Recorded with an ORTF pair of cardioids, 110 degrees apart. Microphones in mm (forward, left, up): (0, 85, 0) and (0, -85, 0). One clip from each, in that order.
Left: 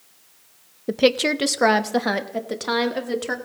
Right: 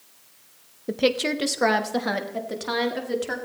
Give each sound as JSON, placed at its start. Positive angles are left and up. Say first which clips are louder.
{"t": 0.9, "sound": "a woman speaking", "louder": "left 4 dB", "azimuth_deg": 20, "distance_m": 0.5}